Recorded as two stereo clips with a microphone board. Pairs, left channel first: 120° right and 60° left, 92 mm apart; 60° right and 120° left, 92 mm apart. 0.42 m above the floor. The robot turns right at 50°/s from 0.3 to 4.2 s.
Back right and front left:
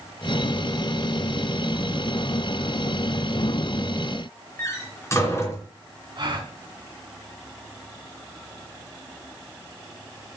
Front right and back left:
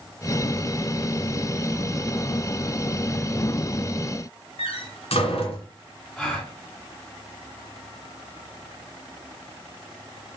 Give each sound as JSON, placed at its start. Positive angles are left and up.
{"t": 4.6, "sound": "a door slam", "azimuth_deg": -60, "distance_m": 3.0}
{"t": 6.2, "sound": "a gasp", "azimuth_deg": 20, "distance_m": 3.0}